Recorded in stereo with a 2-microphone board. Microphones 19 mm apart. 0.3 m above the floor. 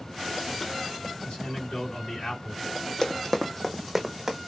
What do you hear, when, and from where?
1.2 s a man speaking: 50° left (ahead or behind), 2.5 m
3.0 s running footsteps: 45° left (ahead or behind), 0.8 m; by 4.4 s 30° right (ahead or behind), 1.1 m